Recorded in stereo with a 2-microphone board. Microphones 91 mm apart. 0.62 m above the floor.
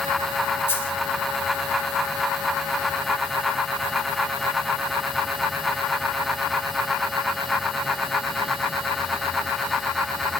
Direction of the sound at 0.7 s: 25° left (ahead or behind).